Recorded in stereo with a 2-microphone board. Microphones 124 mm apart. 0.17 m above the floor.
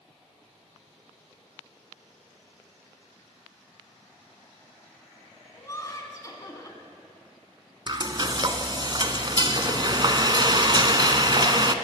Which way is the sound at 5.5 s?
30° left (ahead or behind).